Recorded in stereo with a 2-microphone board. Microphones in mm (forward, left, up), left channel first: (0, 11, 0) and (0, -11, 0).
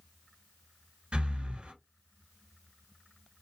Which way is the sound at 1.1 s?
45° right (ahead or behind).